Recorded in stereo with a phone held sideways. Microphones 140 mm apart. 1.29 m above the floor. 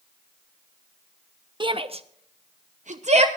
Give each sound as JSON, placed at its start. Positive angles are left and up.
{"t": 1.6, "sound": "a shout", "side_deg": -35, "distance_m": 1.1}